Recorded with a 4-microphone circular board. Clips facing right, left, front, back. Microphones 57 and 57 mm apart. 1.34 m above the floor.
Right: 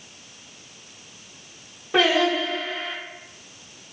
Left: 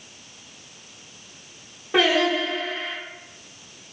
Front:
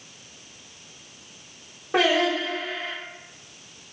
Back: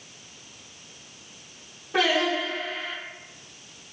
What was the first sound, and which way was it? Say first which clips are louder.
Singing: even, front 2 dB; straight ahead.